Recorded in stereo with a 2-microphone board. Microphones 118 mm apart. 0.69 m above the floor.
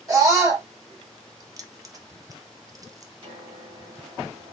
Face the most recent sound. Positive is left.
turn(degrees=-45)  # may be behind; listen again after turning